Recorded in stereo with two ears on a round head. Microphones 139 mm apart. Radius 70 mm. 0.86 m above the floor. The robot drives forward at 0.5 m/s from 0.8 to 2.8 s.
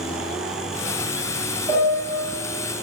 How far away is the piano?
About 0.9 m.